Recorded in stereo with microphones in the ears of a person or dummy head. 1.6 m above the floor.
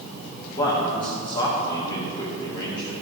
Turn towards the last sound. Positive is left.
turn(degrees=35)  # may be behind; listen again after turning